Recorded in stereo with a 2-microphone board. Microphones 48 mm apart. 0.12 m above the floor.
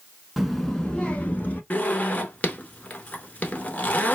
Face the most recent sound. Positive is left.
turn(degrees=30)  # may be behind; listen again after turning